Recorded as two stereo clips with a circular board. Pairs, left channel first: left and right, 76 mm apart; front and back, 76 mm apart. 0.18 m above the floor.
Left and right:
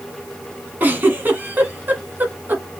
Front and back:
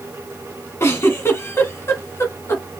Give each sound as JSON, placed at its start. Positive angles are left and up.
{"t": 0.8, "sound": "a giggle", "azimuth_deg": -40, "distance_m": 1.6}